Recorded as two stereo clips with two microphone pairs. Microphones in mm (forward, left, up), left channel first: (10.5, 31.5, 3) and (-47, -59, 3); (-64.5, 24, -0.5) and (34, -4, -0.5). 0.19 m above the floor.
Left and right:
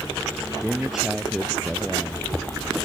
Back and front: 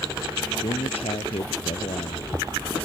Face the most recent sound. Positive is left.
turn(degrees=155)